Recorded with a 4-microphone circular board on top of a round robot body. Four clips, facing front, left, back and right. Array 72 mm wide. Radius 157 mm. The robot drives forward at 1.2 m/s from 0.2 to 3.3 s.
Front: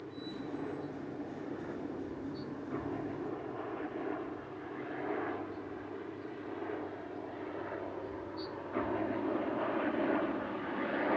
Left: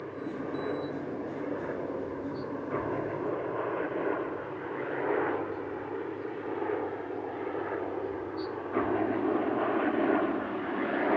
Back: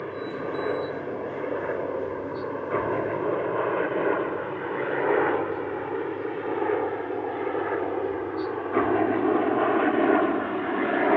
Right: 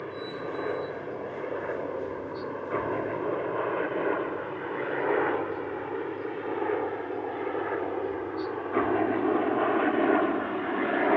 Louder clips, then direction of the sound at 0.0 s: Right 1 dB, back 11 dB; 165° right.